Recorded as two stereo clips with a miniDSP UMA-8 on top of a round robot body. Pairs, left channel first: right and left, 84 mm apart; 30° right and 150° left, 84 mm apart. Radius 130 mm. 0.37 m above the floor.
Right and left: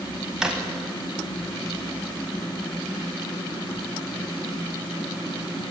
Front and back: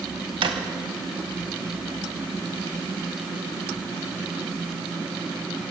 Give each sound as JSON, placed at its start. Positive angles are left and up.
{"t": 0.4, "sound": "a drawer", "azimuth_deg": 170, "distance_m": 0.7}